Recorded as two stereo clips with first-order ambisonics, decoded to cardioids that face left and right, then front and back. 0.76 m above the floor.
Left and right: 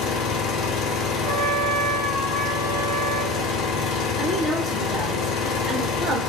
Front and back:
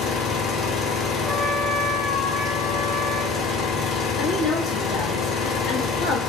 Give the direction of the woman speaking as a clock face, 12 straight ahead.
1 o'clock.